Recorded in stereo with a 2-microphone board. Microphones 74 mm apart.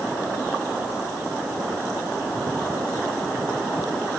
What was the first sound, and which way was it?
Only background noise.